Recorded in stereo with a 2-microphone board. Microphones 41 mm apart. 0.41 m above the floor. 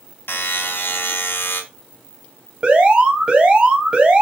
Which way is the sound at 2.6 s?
25° right (ahead or behind).